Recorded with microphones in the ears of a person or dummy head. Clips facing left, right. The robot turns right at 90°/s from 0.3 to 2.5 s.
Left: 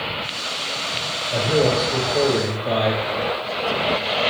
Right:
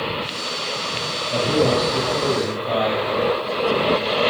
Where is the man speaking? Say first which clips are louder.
Even; straight ahead, 2 m; by 3.1 s 105° left, 2 m.